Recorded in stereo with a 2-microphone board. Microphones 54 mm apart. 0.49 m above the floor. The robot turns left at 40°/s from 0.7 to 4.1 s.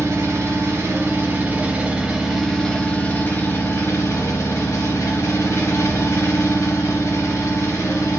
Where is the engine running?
115° right, 0.8 m; by 8.2 s 110° left, 0.8 m.